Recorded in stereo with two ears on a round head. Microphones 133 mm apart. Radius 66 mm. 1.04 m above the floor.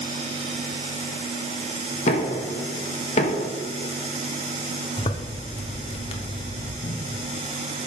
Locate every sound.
2.1 s knocking: 45° left (ahead or behind), 1.0 m
5.0 s a zipper: 40° left (ahead or behind), 0.8 m
6.8 s a cupboard door: 50° left (ahead or behind), 0.8 m